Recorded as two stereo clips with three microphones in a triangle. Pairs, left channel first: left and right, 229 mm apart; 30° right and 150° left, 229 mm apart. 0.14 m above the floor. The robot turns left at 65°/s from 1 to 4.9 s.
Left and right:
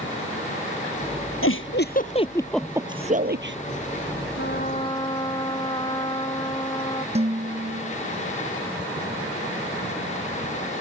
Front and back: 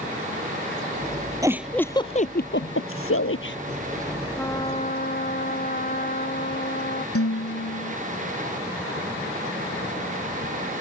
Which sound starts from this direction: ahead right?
Dishes clattering, at 7.2 s.